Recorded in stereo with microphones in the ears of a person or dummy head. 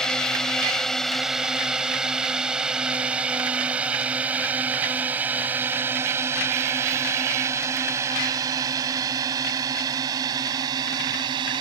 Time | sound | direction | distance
0.0 | a drone | 5° left (ahead or behind) | ?